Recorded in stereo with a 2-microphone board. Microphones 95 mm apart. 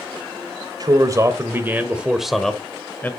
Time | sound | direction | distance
0.8 | a man speaking | 40° right (ahead or behind) | 1.5 m